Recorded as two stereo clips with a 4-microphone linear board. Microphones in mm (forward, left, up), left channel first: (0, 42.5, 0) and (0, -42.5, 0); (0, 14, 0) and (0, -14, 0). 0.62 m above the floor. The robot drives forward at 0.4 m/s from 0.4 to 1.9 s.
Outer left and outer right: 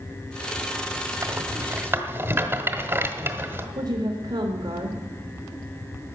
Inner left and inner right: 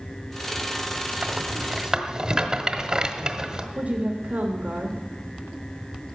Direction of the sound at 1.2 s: 35° right (ahead or behind).